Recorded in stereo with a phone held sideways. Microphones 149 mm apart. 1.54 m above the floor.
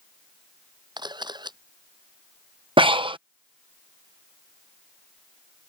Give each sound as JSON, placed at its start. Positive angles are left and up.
{"t": 1.0, "sound": "a camera shutter", "side_deg": -30}
{"t": 2.8, "sound": "breathing", "side_deg": -35}